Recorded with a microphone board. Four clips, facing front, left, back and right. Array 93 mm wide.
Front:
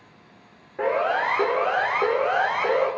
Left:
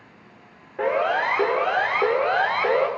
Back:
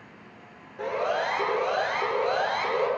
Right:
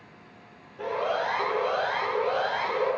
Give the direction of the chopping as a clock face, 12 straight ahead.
I don't hear chopping.